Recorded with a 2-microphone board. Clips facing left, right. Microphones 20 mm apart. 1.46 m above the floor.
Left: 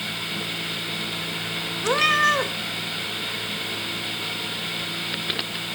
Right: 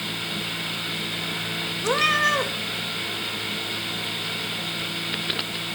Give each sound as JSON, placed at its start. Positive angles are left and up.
{"t": 1.8, "sound": "a cat meowing", "side_deg": 5, "distance_m": 0.8}